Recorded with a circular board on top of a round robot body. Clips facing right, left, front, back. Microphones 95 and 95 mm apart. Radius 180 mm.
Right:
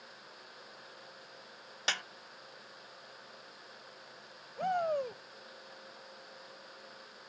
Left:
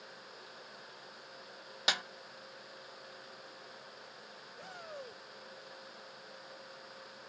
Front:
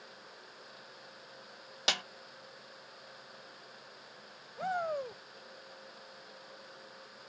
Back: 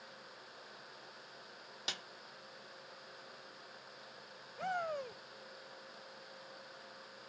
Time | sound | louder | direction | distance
1.9 | a snare drum | left 2 dB, front 12 dB | 10° left | ?
4.6 | a shout | right 16 dB, front 4 dB | 75° right | ?